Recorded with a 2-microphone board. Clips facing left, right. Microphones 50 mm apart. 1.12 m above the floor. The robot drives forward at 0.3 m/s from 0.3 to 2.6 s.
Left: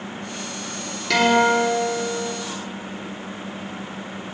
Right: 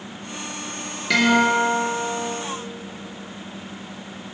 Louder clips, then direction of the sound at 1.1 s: Left 1 dB; 10° right (ahead or behind).